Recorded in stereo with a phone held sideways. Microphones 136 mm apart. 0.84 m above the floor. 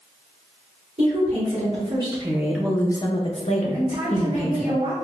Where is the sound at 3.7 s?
55° right (ahead or behind), 1.9 m.